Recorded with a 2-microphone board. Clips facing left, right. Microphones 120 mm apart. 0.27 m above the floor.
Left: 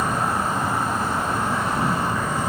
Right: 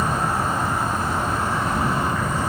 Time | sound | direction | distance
0.0 | an insect | centre (ahead or behind) | 1.3 m